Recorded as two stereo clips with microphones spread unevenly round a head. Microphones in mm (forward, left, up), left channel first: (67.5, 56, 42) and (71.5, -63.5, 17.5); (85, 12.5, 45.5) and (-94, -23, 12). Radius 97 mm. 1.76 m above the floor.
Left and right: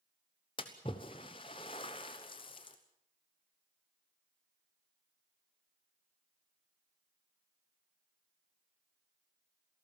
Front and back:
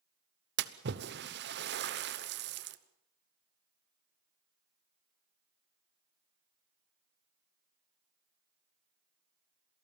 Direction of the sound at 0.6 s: 155° left.